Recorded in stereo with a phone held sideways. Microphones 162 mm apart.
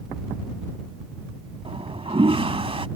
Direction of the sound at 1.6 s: 35° right (ahead or behind).